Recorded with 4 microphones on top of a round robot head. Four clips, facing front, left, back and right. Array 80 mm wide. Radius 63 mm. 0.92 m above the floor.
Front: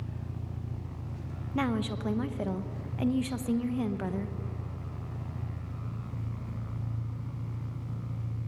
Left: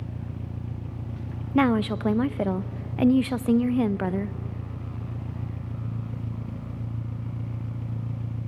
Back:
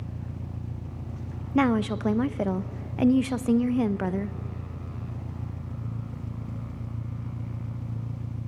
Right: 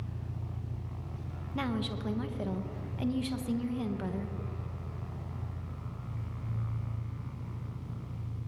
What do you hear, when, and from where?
0.0 s an engine running: 110° left, 1.4 m
1.6 s a woman speaking: 120° left, 0.8 m